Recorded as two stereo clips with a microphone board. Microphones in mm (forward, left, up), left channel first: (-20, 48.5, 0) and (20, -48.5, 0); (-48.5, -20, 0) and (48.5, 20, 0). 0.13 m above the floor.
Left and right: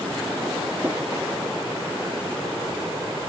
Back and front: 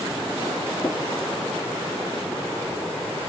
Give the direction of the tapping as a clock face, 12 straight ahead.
4 o'clock.